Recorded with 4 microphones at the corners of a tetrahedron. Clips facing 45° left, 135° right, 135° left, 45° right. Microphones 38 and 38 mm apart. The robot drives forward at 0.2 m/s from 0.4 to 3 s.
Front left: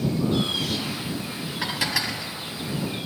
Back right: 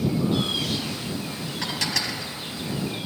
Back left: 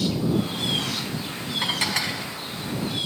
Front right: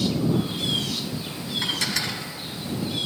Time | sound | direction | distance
1.6 | dishes clattering | 105° left | 1.0 m